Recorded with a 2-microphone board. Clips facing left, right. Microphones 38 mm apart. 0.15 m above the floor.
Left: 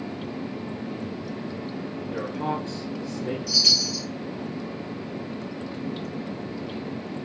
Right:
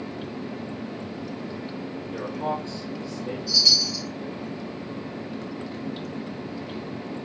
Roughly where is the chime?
Left.